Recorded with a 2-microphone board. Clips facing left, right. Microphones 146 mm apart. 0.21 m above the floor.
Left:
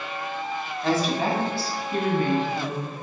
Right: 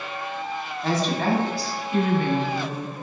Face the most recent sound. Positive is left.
turn(degrees=55)  # may be behind; listen again after turning